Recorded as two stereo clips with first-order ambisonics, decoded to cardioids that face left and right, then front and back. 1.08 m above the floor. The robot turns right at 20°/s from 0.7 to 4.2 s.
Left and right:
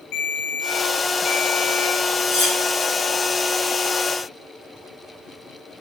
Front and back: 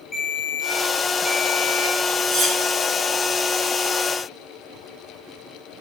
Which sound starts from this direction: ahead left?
A ringtone, at 0.1 s.